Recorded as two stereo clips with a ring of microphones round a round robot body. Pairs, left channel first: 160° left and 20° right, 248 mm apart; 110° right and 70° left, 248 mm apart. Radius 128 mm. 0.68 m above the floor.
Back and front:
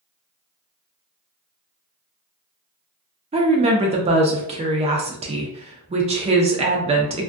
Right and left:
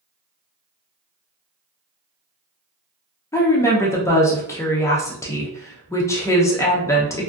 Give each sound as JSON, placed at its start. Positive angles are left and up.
{"t": 3.3, "sound": "a woman speaking", "azimuth_deg": -50, "distance_m": 0.5}